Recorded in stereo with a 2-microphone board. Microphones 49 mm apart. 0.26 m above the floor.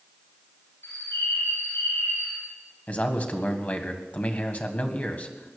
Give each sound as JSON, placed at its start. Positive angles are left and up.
{"t": 0.8, "sound": "a bird", "side_deg": 85, "distance_m": 6.0}
{"t": 2.9, "sound": "a man speaking", "side_deg": 35, "distance_m": 1.7}